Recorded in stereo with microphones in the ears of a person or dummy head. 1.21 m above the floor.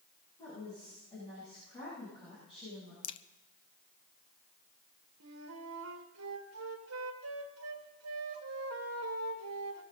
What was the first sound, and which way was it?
A woman speaking, 30° left (ahead or behind).